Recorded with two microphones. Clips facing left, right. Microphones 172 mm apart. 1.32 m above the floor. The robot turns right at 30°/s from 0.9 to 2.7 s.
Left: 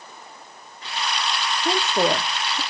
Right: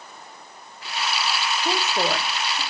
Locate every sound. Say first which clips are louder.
1.6 s a woman speaking: left 4 dB; 10° left (ahead or behind), 0.8 m; by 2.6 s 35° left (ahead or behind), 0.8 m